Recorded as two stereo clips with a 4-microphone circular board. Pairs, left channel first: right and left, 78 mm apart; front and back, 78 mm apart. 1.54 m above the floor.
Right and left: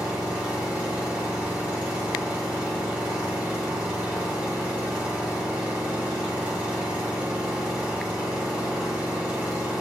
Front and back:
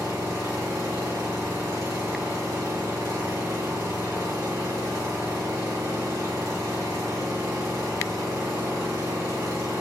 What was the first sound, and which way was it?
An engine running, 160° left.